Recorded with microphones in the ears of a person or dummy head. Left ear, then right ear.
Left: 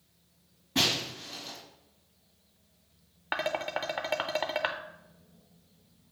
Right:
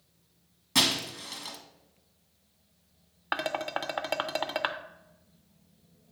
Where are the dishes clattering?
10° right (ahead or behind), 0.6 m.